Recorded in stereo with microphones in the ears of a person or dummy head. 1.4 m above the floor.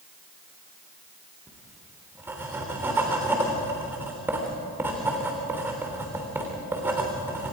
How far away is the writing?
About 3 m.